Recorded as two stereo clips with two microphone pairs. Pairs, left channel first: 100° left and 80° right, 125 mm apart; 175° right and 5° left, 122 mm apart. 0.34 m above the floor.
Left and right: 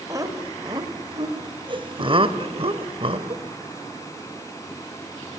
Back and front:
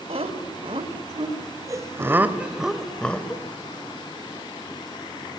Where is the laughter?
20° right, 1.9 m; by 3.4 s 105° right, 1.3 m.